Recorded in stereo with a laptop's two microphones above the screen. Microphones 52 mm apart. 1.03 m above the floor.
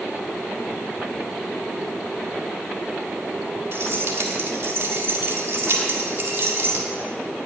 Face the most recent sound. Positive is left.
turn(degrees=-55)  # may be behind; listen again after turning